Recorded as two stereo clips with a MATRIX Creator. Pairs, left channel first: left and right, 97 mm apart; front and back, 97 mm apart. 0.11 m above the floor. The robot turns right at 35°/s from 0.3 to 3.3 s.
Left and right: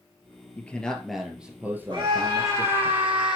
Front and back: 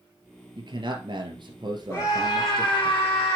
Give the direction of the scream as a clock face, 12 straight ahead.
2 o'clock.